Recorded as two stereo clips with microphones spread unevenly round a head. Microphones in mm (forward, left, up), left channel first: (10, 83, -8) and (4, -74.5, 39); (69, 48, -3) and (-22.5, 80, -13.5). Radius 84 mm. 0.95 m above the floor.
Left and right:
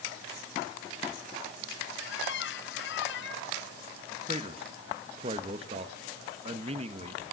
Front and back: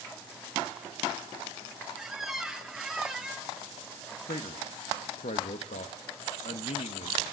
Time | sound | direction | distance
2.0 | a squeak | 75° left | 1.6 m
4.3 | a man speaking | 35° right | 1.3 m